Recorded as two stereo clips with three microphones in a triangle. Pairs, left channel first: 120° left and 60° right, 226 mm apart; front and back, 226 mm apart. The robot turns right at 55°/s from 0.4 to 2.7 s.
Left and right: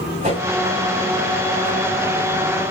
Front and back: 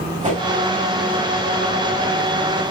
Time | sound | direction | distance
0.2 | a whoosh | 120° right | 9 m